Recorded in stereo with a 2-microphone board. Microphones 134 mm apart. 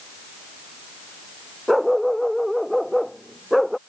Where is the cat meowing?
No cat meowing in this recording.